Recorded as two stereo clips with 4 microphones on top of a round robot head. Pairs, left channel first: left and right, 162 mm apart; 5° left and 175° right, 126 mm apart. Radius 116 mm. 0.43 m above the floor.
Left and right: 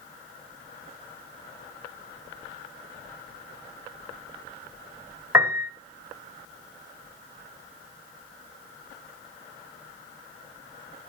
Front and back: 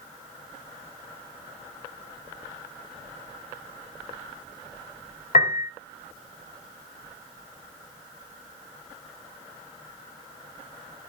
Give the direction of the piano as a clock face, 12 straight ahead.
1 o'clock.